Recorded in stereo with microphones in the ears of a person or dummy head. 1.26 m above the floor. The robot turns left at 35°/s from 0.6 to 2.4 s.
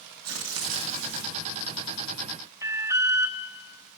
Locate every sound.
0.2 s tearing paper: 80° right, 3 m; by 1.4 s 60° right (ahead or behind), 3 m
2.6 s an alarm: 15° right (ahead or behind), 0.6 m